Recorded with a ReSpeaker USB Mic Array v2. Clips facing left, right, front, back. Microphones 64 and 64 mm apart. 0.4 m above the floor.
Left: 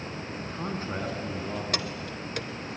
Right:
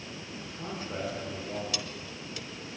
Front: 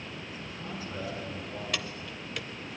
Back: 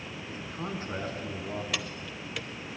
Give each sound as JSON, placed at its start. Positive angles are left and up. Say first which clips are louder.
{"t": 0.3, "sound": "a man speaking", "louder": "left 5 dB, back 7 dB", "azimuth_deg": 130, "distance_m": 4.5}
{"t": 1.7, "sound": "keys jangling", "louder": "left 6 dB, even", "azimuth_deg": 90, "distance_m": 1.0}